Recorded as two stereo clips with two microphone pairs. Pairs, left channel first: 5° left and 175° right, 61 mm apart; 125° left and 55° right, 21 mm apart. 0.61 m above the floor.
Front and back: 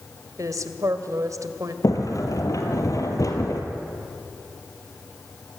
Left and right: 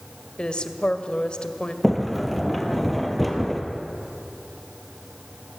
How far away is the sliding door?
About 2.5 m.